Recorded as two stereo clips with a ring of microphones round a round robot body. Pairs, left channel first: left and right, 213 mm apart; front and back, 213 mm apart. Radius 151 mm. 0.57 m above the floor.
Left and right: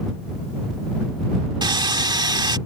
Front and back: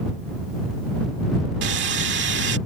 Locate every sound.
1.6 s sawing: 155° right